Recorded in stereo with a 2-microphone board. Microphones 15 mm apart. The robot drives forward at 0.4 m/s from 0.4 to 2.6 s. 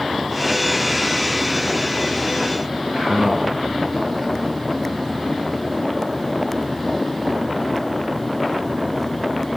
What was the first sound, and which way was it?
A man speaking, 80° right.